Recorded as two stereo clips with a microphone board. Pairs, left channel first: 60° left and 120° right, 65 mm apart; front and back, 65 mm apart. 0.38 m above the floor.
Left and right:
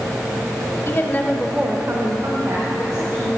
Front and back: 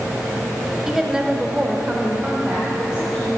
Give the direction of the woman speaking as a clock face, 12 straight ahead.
9 o'clock.